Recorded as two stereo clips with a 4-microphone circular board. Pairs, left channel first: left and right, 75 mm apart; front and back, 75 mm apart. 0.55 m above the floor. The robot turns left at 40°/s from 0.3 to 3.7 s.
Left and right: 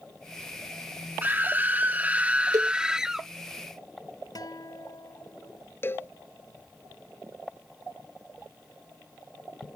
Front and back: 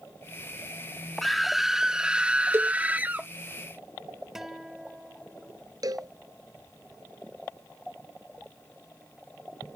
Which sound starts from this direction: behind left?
A cowbell, at 5.8 s.